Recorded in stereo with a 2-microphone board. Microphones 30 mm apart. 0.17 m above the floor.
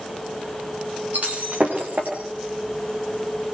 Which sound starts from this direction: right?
Breaking glass, at 1.1 s.